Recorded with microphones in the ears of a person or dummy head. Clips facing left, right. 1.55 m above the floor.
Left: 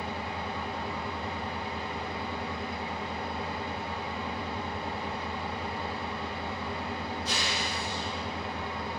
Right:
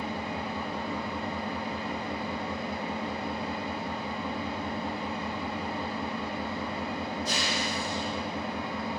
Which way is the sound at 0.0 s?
40° right (ahead or behind).